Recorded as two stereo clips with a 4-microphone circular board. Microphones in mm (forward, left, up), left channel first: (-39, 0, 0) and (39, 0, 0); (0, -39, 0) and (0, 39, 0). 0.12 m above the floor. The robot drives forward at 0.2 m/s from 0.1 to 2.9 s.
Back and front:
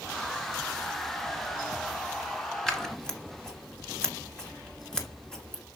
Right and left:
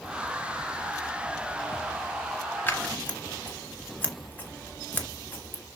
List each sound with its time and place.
2.7 s scissors: 105° right, 1.7 m